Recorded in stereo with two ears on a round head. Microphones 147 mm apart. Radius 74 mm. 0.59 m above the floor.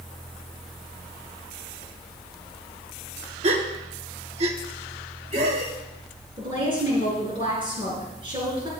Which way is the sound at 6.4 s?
35° right (ahead or behind).